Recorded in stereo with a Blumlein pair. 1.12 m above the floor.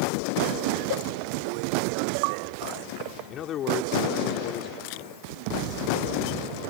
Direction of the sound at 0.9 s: 50° left.